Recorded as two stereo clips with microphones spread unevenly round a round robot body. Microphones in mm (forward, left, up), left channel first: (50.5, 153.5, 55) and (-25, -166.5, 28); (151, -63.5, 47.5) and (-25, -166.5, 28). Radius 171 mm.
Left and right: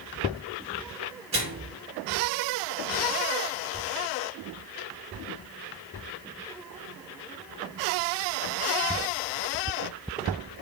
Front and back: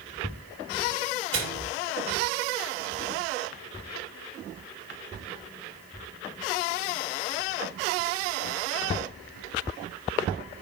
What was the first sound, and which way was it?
A microwave, 175° right.